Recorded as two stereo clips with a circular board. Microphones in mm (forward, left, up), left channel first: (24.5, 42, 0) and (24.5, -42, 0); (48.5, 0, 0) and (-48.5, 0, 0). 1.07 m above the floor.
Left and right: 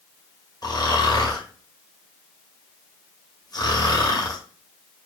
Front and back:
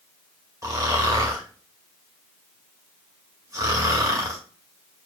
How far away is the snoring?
About 1.8 m.